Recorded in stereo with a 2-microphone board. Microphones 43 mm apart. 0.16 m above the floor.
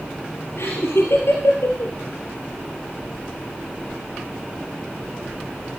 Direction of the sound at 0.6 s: 70° left (ahead or behind).